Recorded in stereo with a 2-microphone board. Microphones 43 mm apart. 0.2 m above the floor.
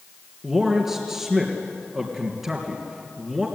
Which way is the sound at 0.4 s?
Centre (ahead or behind).